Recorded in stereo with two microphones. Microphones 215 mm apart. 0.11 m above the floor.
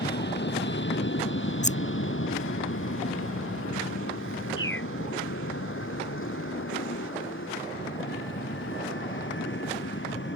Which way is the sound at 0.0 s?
50° left (ahead or behind).